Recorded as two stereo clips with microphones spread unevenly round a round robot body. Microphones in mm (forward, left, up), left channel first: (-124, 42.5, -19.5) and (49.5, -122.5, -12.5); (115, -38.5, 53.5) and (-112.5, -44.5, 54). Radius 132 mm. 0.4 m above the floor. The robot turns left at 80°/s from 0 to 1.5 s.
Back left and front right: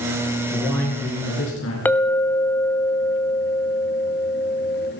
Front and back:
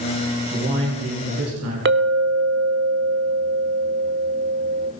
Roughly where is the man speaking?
Behind right.